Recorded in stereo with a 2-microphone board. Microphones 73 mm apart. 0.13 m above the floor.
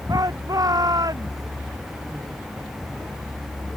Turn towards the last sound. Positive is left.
turn(degrees=-55)  # may be behind; listen again after turning